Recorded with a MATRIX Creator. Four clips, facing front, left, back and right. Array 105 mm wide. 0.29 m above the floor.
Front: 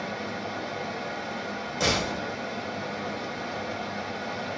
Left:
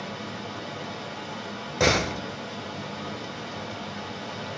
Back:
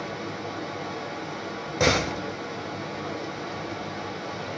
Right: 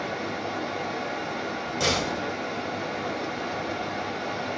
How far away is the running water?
About 0.9 m.